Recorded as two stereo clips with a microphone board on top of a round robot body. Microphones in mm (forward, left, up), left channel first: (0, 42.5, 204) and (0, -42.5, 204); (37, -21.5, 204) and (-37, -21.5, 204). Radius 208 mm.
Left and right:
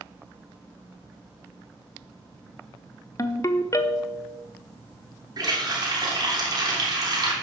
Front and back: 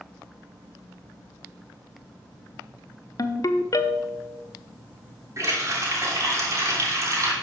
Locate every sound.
3.2 s a ringtone: 35° left, 0.7 m
5.4 s a running tap: 130° right, 3 m